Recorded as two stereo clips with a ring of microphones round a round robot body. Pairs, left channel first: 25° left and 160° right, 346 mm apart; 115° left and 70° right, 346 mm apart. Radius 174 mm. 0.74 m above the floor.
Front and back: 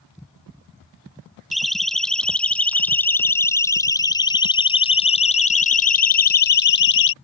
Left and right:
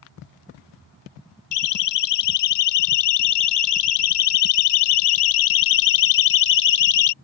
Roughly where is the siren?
Left.